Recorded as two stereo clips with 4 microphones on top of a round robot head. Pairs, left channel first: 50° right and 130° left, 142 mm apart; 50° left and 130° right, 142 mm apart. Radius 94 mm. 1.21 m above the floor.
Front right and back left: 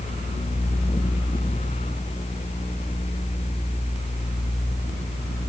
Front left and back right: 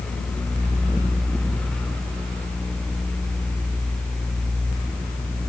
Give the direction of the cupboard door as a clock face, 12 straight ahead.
No cupboard door in this recording.